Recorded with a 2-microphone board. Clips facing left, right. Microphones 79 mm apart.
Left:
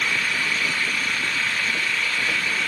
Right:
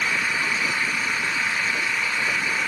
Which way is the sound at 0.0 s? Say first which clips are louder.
Even; 15° right (ahead or behind).